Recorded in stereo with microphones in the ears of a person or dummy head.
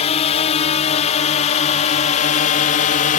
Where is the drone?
35° left (ahead or behind); by 3.2 s 45° left (ahead or behind).